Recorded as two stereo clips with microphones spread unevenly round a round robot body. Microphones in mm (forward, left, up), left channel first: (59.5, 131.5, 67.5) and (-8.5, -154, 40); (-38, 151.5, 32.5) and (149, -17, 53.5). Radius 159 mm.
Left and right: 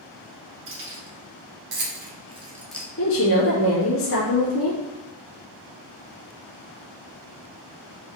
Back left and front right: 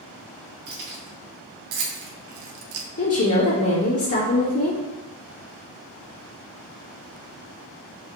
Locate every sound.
0.7 s keys jangling: 60° right, 2 m; by 2.9 s straight ahead, 0.6 m
3.0 s a woman speaking: 125° left, 2 m